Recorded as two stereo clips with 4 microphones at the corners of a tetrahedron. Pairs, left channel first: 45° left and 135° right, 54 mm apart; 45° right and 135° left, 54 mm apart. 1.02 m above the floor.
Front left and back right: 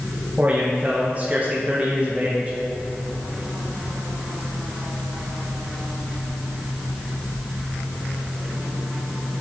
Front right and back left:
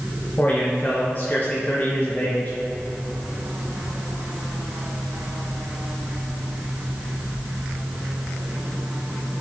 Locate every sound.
0.4 s a man speaking: 90° right, 1.2 m